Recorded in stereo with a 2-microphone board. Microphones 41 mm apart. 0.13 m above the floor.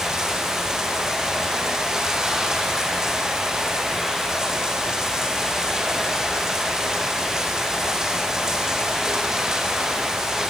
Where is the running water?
15° right (ahead or behind), 3 m.